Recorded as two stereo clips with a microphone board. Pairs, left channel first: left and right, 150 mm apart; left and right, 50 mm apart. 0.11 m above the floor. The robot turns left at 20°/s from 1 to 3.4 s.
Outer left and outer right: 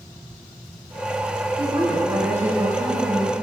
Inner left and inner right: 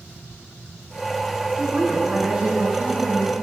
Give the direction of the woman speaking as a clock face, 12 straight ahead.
5 o'clock.